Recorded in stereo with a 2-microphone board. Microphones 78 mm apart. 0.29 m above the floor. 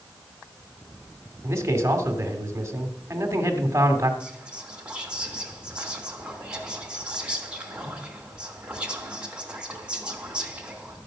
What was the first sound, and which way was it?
A man speaking, 35° right (ahead or behind).